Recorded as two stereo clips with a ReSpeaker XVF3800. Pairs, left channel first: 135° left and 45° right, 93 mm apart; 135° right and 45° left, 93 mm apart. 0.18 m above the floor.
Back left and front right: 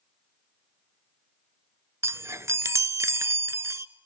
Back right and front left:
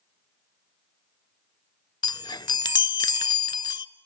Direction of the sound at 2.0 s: 100° right.